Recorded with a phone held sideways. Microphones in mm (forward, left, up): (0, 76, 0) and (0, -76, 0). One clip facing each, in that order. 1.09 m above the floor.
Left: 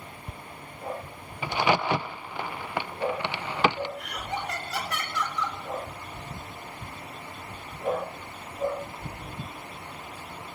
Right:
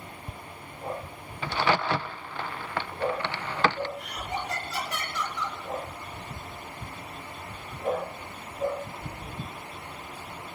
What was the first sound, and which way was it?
A crack, 15° left (ahead or behind).